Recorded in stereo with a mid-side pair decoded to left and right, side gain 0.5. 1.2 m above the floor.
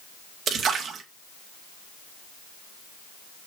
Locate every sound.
0.5 s a splash: 55° right, 2 m